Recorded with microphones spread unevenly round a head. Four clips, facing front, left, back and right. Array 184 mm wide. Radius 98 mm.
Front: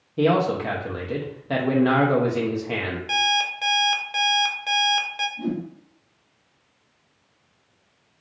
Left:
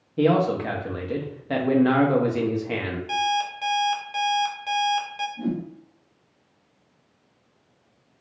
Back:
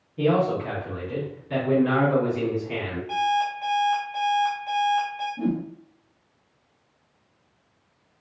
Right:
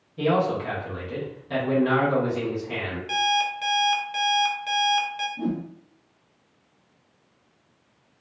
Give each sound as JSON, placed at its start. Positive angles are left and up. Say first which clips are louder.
{"t": 0.2, "sound": "a man speaking", "louder": "left 3 dB, front 2 dB", "azimuth_deg": 40, "distance_m": 0.8}
{"t": 3.1, "sound": "an alarm clock", "louder": "right 1 dB, back 3 dB", "azimuth_deg": 15, "distance_m": 0.6}
{"t": 5.4, "sound": "a whoosh", "louder": "even, back 2 dB", "azimuth_deg": -140, "distance_m": 1.0}